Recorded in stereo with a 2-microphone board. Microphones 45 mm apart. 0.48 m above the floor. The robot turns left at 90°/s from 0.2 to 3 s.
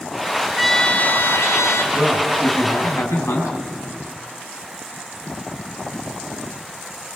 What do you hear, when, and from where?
0.6 s a trumpet: 175° right, 1.4 m; by 1.8 s 70° left, 1.4 m
1.9 s a man speaking: 170° right, 3.5 m; by 3.5 s 95° left, 3.5 m